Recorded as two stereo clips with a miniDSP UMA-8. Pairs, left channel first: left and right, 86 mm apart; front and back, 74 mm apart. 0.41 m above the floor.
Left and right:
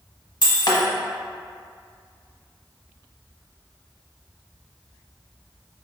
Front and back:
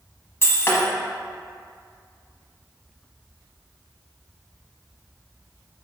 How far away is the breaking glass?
About 1.0 m.